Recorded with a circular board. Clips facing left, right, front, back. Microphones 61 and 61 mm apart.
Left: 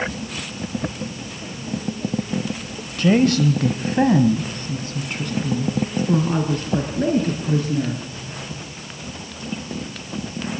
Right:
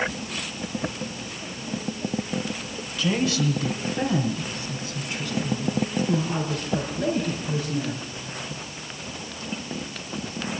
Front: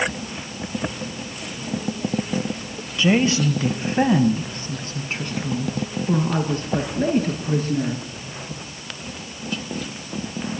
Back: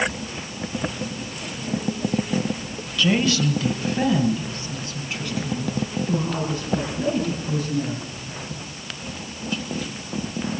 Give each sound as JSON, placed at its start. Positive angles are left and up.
{"t": 3.0, "sound": "a woman speaking", "azimuth_deg": 65, "distance_m": 2.5}